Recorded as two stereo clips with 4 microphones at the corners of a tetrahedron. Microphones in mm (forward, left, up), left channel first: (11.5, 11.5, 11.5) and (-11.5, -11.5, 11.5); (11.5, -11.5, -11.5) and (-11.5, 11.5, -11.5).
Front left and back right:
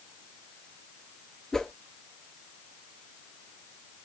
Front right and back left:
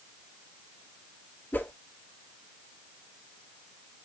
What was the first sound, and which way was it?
A whoosh, 30° right.